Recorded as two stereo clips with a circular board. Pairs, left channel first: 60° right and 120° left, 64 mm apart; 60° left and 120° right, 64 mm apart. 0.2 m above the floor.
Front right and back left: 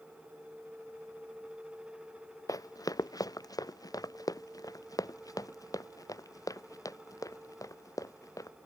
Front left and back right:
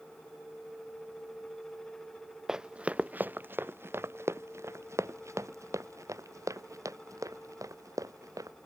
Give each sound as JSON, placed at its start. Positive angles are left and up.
{"t": 2.5, "sound": "running footsteps", "azimuth_deg": -40}